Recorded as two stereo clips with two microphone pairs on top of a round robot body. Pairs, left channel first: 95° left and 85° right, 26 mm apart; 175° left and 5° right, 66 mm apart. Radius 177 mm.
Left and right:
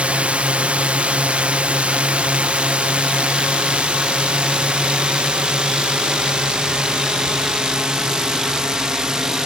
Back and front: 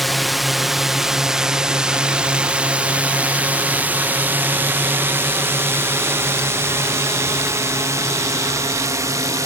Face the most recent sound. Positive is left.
turn(degrees=-25)